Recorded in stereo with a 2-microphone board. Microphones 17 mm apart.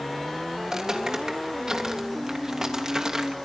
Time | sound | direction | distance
0.6 | footsteps | 40° right (ahead or behind) | 4 m